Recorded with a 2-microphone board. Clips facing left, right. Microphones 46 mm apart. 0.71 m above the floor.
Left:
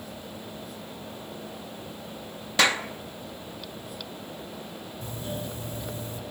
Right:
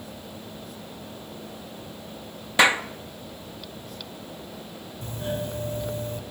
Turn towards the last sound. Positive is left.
turn(degrees=-40)  # may be behind; listen again after turning